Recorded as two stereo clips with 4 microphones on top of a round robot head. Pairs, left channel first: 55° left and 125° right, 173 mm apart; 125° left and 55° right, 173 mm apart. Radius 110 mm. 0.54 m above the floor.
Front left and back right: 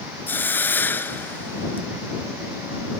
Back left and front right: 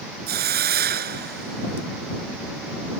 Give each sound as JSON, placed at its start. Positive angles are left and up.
{"t": 0.3, "sound": "a hiss", "azimuth_deg": -20}